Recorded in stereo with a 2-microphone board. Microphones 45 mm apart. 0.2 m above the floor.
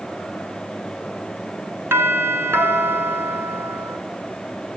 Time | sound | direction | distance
1.9 | a doorbell | 60° right (ahead or behind) | 3.5 m